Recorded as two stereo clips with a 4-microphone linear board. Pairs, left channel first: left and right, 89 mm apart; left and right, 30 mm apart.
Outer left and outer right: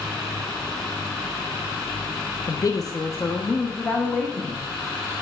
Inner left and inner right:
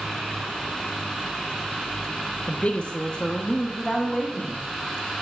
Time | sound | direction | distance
2.5 | a woman speaking | 40° left (ahead or behind) | 0.6 m